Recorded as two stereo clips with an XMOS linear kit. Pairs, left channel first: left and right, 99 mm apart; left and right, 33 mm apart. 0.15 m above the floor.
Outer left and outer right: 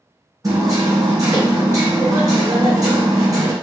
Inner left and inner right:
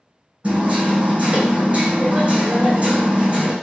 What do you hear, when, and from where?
0.4 s hammering: 35° right (ahead or behind), 1.5 m